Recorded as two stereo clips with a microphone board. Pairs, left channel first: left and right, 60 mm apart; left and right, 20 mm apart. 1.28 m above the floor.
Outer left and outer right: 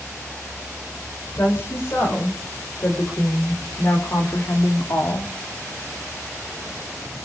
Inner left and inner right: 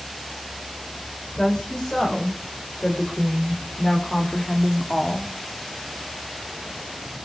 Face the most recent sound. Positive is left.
turn(degrees=55)  # may be behind; listen again after turning